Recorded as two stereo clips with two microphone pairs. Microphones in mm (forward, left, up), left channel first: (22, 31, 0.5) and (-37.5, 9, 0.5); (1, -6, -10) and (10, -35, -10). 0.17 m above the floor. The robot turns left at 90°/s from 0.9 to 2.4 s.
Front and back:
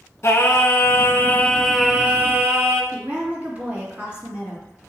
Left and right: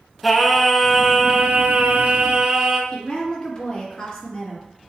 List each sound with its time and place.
0.2 s singing: 10° left, 0.6 m; by 2.8 s 125° right, 0.6 m
2.9 s a woman speaking: 145° left, 2.0 m